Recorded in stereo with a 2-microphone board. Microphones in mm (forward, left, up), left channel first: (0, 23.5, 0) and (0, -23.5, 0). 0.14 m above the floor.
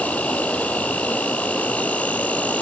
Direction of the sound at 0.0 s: 30° left (ahead or behind).